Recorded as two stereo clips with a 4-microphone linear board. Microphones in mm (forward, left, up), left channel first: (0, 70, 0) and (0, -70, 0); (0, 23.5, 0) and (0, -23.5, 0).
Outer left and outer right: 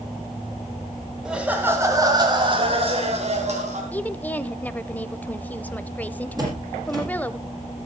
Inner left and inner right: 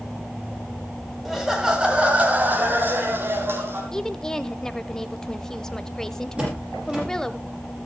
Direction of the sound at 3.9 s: 10° left (ahead or behind).